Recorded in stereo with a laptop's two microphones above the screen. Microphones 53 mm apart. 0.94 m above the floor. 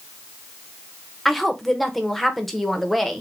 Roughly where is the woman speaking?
Centre.